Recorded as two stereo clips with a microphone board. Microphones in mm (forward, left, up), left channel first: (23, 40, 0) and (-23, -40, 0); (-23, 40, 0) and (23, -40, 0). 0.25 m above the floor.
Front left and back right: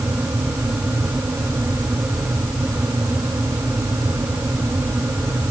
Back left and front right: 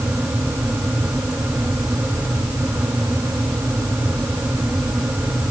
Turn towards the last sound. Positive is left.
No sound to turn to.